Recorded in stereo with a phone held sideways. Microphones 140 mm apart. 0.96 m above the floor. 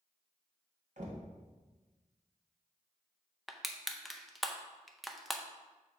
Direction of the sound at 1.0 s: 60° right (ahead or behind).